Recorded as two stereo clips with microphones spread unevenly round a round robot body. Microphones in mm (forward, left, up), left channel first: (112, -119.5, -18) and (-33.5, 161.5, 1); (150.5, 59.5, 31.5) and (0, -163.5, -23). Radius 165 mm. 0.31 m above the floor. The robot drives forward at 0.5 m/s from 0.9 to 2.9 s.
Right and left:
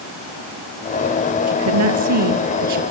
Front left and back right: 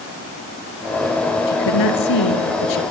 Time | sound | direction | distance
1.5 | a woman speaking | 80° left | 6 m